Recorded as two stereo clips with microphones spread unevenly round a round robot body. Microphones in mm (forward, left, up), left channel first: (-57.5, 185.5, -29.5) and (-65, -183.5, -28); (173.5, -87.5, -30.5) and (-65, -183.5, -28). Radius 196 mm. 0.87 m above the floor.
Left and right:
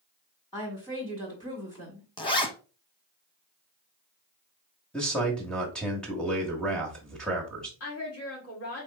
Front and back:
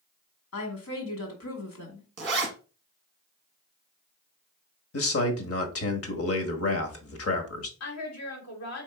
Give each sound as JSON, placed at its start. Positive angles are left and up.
{"t": 0.5, "sound": "a woman speaking", "azimuth_deg": 10, "distance_m": 2.0}
{"t": 2.2, "sound": "a zipper", "azimuth_deg": 160, "distance_m": 0.9}
{"t": 4.9, "sound": "a man speaking", "azimuth_deg": 0, "distance_m": 1.2}
{"t": 7.8, "sound": "a woman speaking", "azimuth_deg": 35, "distance_m": 1.9}